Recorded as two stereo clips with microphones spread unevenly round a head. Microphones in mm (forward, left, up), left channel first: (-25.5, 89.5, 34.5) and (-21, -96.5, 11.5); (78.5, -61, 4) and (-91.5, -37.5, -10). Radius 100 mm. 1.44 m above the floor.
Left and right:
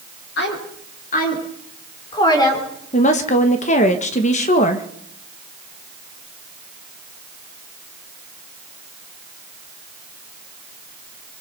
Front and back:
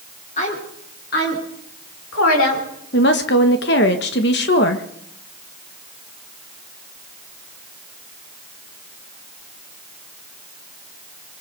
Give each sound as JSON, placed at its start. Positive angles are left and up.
{"t": 0.4, "sound": "a woman speaking", "azimuth_deg": 50, "distance_m": 5.0}
{"t": 2.9, "sound": "a woman speaking", "azimuth_deg": 35, "distance_m": 1.7}